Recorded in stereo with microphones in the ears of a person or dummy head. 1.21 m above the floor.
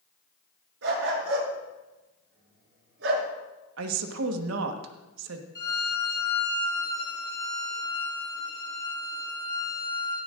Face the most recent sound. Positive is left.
turn(degrees=25)  # may be behind; listen again after turning